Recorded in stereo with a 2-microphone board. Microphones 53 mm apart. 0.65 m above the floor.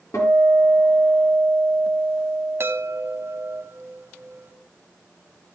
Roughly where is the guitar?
Left.